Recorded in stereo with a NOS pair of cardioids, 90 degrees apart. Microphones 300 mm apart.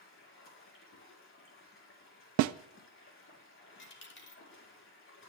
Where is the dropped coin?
35° left, 2.5 m.